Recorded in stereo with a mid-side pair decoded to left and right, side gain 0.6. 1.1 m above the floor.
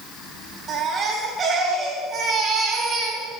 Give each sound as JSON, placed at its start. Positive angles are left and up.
{"t": 0.7, "sound": "a baby crying", "azimuth_deg": -40, "distance_m": 5.5}